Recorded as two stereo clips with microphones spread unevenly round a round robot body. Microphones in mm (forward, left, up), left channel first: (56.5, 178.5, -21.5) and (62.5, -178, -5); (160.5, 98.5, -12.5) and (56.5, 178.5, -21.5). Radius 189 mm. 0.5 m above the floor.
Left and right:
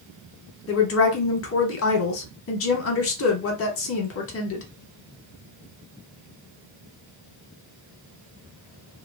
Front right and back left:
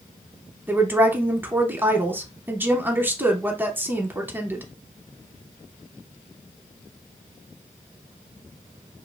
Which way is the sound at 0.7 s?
80° left.